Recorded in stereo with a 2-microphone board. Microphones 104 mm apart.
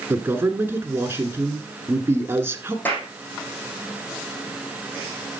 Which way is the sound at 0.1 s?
25° right (ahead or behind).